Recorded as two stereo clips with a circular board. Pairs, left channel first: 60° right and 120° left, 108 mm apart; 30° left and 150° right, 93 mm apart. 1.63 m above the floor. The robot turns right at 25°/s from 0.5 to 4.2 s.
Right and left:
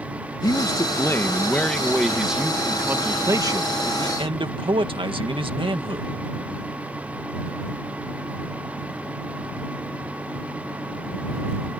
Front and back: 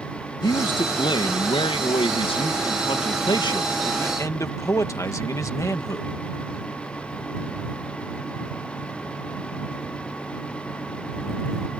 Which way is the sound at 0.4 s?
10° right.